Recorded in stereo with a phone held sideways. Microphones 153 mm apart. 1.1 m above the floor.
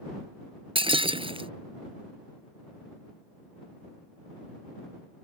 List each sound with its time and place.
0.8 s breaking glass: 35° right (ahead or behind)